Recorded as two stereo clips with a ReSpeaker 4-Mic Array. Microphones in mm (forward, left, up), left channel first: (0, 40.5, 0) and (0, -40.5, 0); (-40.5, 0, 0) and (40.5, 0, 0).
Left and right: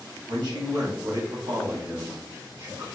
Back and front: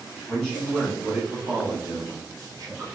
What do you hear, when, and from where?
0.3 s a man speaking: 95° right, 1.4 m; by 2.9 s 35° right, 1.6 m